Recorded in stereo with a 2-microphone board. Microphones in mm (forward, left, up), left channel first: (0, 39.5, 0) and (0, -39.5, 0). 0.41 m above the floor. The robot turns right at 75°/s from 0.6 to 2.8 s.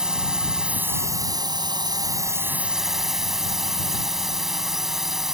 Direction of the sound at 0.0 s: 170° right.